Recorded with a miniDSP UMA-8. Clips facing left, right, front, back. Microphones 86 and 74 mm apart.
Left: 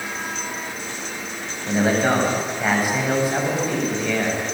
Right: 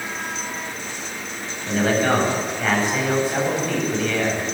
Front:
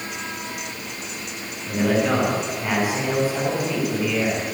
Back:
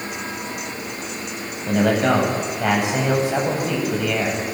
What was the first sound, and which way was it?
A man speaking, 170° left.